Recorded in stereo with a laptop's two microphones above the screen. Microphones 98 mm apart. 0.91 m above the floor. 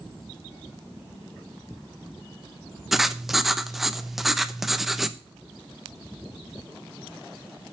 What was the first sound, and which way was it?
Writing, centre (ahead or behind).